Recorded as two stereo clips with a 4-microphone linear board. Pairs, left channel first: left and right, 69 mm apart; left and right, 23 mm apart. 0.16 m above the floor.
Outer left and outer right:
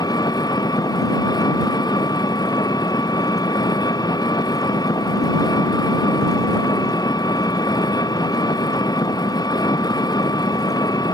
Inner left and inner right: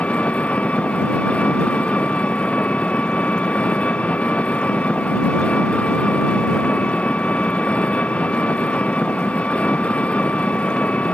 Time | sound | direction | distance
0.0 | an engine running | 65° left (ahead or behind) | ?